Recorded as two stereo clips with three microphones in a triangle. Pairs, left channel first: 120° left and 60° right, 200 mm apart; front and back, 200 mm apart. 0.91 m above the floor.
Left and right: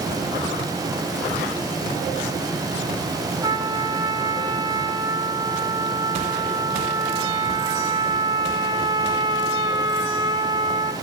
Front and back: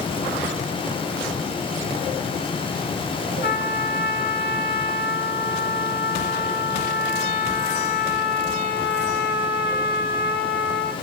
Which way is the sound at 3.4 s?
5° left.